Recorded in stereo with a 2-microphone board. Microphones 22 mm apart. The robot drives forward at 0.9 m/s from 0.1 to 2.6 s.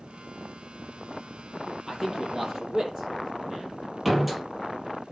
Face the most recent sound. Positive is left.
turn(degrees=-10)  # may be behind; listen again after turning